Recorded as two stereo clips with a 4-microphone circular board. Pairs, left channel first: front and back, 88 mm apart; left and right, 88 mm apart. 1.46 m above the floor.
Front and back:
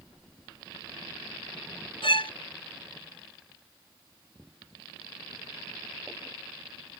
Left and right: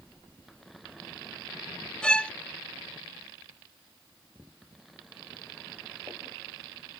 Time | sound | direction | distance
2.0 | a violin | 10° left | ?